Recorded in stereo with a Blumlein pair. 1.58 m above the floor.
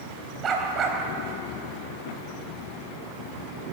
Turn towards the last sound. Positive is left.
turn(degrees=-25)